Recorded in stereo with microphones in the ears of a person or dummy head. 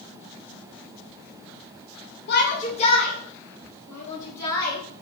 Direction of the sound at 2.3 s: 65° left (ahead or behind).